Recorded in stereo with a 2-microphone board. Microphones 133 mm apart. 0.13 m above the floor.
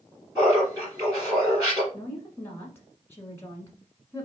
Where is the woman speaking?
20° left (ahead or behind), 1.2 m.